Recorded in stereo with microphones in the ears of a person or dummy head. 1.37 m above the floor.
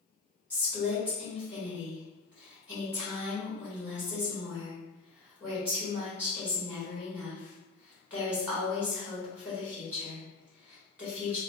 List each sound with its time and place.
0.5 s a woman speaking: 5° right (ahead or behind), 1.6 m